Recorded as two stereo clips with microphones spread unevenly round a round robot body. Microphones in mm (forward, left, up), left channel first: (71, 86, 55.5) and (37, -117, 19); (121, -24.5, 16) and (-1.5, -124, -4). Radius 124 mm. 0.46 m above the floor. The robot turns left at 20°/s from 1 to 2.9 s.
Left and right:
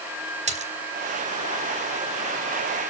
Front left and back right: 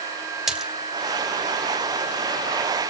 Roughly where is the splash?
Ahead right.